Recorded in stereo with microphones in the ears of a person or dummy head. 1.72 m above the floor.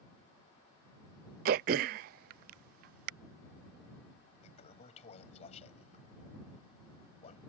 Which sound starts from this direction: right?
Throat clearing, at 1.4 s.